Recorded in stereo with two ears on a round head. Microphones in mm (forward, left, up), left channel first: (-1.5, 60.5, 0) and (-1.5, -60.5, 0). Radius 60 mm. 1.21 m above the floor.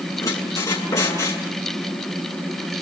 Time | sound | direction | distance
0.2 | a squeak | 25° left (ahead or behind) | 7 m